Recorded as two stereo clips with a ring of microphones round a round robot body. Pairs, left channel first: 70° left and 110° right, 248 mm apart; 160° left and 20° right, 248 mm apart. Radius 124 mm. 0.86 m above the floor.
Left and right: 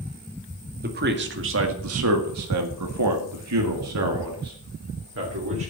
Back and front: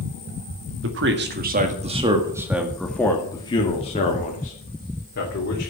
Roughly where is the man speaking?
Ahead right.